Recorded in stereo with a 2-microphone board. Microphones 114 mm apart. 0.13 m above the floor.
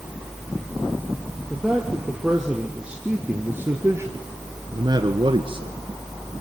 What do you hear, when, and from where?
1.5 s a man speaking: centre (ahead or behind), 3.5 m; by 5.7 s 50° right (ahead or behind), 1.7 m